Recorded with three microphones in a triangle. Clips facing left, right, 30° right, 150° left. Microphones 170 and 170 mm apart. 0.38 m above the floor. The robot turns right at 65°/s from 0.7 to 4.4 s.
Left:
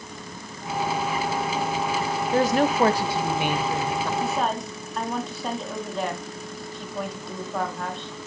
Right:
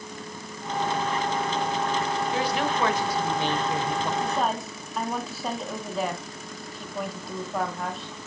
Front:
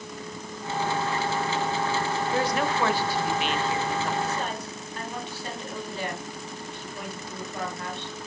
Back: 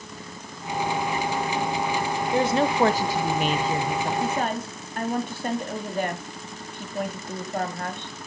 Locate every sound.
2.3 s a woman speaking: 90° left, 1.2 m; by 4.1 s 155° right, 1.2 m
4.2 s a woman speaking: 170° left, 3 m; by 8.2 s straight behind, 3 m